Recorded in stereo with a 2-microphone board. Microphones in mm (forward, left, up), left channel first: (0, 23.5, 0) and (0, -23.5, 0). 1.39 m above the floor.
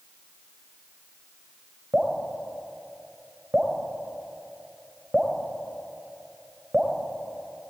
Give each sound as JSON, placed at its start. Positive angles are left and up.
{"t": 1.9, "sound": "dripping", "side_deg": -25, "distance_m": 3.0}